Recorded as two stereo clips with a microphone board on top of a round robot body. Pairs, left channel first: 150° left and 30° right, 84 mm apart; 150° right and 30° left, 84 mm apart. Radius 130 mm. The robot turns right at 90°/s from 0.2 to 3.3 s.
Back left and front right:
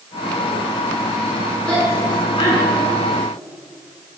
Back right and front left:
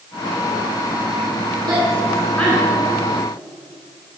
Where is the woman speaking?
70° left, 7 m; by 2.9 s straight behind, 7 m.